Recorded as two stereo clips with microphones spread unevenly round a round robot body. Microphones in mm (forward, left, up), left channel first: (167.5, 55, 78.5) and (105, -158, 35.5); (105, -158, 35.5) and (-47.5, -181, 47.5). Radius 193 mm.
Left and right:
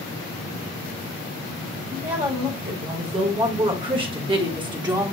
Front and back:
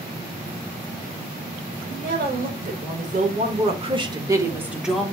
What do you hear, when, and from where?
1.9 s a woman speaking: 170° right, 2 m; by 5.1 s 65° right, 1.2 m